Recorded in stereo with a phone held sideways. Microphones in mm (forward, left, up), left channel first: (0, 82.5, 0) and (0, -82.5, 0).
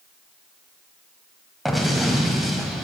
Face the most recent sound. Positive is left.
turn(degrees=0)  # may be behind; listen again after turning